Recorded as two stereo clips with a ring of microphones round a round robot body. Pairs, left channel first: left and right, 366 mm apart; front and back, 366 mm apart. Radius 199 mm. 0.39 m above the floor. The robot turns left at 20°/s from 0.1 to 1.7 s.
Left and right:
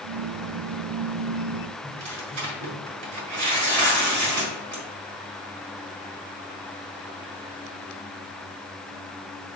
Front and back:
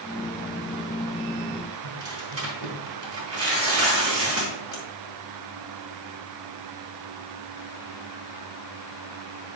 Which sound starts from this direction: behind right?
Tearing paper, at 1.8 s.